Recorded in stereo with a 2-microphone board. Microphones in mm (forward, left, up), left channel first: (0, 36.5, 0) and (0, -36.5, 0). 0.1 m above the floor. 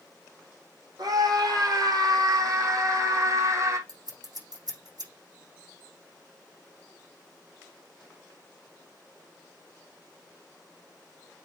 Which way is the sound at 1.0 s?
70° right (ahead or behind).